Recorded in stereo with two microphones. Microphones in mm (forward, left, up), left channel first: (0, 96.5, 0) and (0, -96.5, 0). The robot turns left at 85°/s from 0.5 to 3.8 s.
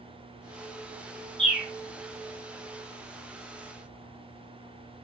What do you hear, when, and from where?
1.4 s a bird: 5° left (ahead or behind), 1.4 m; by 1.7 s 20° right (ahead or behind), 1.4 m